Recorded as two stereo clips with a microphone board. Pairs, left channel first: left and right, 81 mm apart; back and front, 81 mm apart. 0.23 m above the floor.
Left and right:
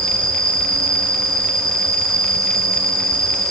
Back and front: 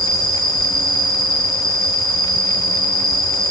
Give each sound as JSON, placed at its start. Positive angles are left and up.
{"t": 0.0, "sound": "an insect", "azimuth_deg": 175, "distance_m": 4.0}